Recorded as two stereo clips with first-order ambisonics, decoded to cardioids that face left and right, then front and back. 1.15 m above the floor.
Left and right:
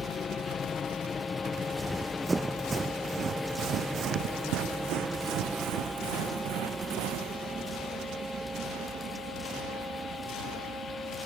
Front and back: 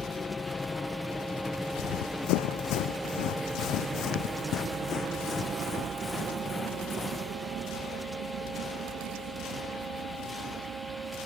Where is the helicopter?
55° left; by 11.3 s 145° right.